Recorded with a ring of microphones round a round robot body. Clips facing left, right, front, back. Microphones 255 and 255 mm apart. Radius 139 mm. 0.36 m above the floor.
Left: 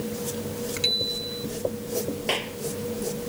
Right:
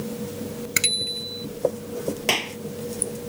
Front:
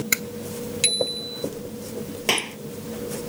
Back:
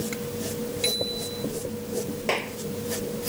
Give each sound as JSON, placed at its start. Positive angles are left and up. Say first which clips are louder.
{"t": 0.8, "sound": "a bicycle bell", "louder": "left 3 dB, front 1 dB", "azimuth_deg": -55}
{"t": 2.3, "sound": "a clap", "louder": "right 1 dB, even", "azimuth_deg": -50}